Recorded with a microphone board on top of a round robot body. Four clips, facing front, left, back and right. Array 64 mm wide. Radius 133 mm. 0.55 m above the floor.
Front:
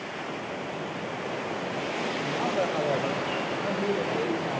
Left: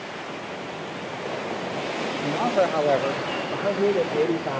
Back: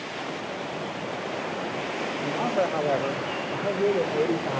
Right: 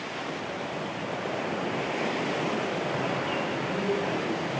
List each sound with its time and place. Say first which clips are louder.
2.2 s a man speaking: left 7 dB, back 3 dB; 110° left, 4 m; by 4.6 s 135° left, 2.5 m